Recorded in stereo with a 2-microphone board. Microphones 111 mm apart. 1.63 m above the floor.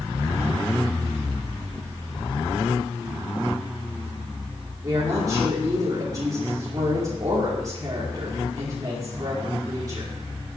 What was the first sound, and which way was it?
A woman speaking, 35° right (ahead or behind).